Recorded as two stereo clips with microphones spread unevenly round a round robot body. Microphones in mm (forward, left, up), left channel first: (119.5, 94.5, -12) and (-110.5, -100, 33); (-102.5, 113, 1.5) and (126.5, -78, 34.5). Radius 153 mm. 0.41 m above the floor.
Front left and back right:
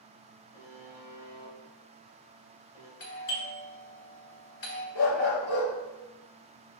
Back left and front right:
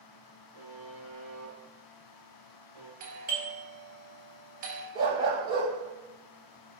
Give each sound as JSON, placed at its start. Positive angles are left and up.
{"t": 0.5, "sound": "a buzzer", "azimuth_deg": 110, "distance_m": 2.5}
{"t": 3.0, "sound": "a doorbell", "azimuth_deg": 15, "distance_m": 1.9}
{"t": 5.0, "sound": "a dog barking", "azimuth_deg": 35, "distance_m": 2.5}